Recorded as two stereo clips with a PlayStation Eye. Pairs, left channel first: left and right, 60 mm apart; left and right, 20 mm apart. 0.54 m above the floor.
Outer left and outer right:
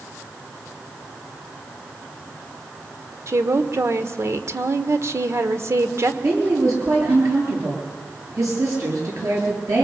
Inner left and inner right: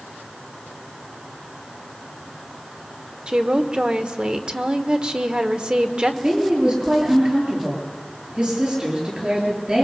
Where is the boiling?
No boiling in this recording.